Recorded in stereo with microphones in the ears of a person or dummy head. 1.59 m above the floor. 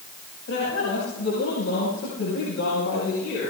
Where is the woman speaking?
75° left (ahead or behind), 9.5 m; by 3.5 s 60° left (ahead or behind), 9 m.